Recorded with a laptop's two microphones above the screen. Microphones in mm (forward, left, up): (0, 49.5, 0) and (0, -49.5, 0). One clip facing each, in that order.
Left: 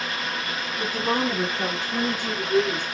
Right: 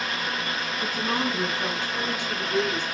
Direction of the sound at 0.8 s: 75° left (ahead or behind).